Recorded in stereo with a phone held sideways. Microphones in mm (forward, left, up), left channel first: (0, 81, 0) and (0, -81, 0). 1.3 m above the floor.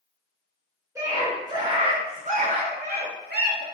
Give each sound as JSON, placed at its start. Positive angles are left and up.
{"t": 0.9, "sound": "a scream", "side_deg": -15, "distance_m": 1.3}